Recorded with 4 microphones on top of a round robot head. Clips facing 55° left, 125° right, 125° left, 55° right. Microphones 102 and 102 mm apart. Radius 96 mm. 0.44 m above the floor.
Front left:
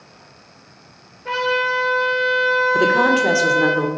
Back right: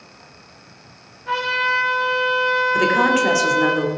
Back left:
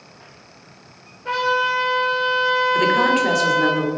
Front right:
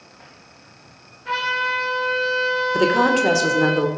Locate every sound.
1.2 s a trumpet: 75° left, 6.5 m
2.7 s a woman speaking: 5° right, 2 m